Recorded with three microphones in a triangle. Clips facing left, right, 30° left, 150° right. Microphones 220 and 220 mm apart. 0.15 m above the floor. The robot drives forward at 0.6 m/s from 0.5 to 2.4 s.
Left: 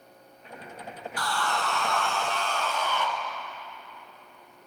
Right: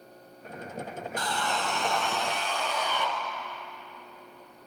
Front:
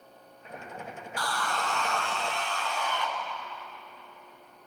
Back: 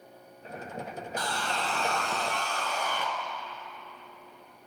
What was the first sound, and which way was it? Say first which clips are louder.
Sawing: left 1 dB, front 1 dB; 115° right.